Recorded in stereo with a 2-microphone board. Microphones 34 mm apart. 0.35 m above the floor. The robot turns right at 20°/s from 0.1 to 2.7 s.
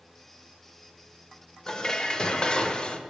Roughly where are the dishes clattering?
Left.